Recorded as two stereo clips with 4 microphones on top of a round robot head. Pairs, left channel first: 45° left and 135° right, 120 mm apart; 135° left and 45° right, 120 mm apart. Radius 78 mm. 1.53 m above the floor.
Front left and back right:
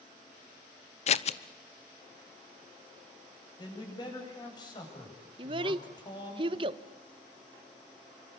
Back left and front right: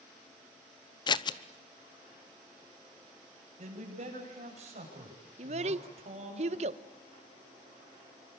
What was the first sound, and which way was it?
Scissors, 80° left.